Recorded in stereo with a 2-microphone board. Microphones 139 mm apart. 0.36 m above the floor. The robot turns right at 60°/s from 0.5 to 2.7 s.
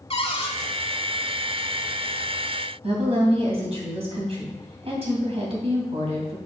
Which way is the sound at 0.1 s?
45° left (ahead or behind).